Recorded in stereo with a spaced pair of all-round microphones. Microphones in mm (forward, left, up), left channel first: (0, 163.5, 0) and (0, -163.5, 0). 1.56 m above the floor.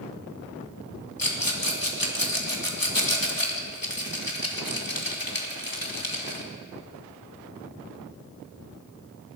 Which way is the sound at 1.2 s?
80° left.